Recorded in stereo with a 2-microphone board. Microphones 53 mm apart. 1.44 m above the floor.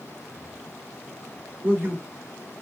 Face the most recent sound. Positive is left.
turn(degrees=-40)  # may be behind; listen again after turning